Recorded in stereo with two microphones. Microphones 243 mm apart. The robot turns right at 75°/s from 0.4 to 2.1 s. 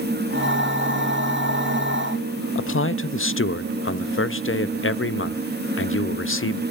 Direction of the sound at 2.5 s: 55° left (ahead or behind).